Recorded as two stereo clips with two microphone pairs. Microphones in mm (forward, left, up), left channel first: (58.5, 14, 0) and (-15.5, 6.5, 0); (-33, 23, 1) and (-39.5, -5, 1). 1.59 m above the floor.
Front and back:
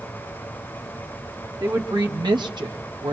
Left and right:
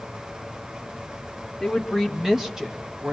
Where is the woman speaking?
170° left, 1.6 m; by 3.1 s 160° right, 1.1 m.